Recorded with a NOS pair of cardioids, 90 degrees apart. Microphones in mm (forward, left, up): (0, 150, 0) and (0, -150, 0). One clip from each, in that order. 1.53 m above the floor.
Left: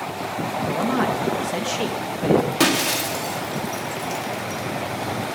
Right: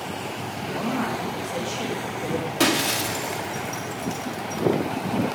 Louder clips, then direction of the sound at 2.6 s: Left 2 dB; 15° left.